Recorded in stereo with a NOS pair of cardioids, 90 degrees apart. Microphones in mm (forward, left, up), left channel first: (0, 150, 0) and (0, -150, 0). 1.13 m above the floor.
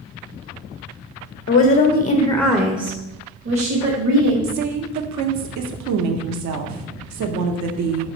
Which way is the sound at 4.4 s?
65° right.